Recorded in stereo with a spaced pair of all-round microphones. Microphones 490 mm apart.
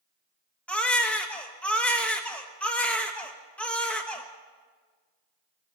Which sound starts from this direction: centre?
A baby crying, at 0.7 s.